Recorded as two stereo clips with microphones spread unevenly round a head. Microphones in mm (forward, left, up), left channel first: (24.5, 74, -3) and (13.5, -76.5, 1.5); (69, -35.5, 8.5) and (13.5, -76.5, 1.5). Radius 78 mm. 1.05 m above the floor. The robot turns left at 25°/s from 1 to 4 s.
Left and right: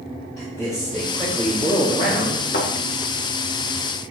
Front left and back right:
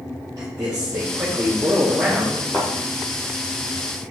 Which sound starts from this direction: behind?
A man speaking, at 0.4 s.